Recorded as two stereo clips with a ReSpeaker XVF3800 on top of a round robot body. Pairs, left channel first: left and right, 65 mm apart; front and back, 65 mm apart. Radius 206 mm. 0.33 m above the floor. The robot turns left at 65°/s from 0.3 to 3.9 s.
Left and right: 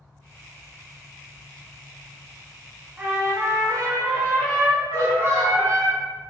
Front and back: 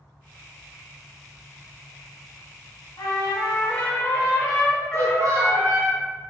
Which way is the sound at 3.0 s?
20° right.